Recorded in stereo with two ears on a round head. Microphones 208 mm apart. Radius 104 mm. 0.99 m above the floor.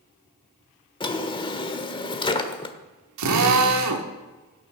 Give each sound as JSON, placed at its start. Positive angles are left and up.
{"t": 1.0, "sound": "a drawer", "side_deg": 20, "distance_m": 1.2}
{"t": 3.2, "sound": "a drill", "side_deg": -85, "distance_m": 1.8}